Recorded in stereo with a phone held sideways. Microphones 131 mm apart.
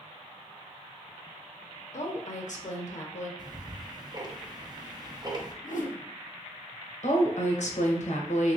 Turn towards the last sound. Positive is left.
turn(degrees=60)  # may be behind; listen again after turning